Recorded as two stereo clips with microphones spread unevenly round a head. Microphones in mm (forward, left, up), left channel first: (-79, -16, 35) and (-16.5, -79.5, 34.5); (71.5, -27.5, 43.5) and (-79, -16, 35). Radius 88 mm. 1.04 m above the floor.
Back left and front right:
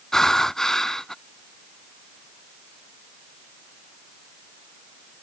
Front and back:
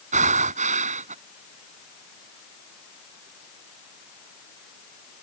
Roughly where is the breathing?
Behind right.